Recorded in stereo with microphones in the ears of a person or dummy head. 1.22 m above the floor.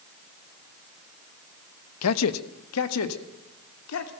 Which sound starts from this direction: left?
A man speaking, at 2.0 s.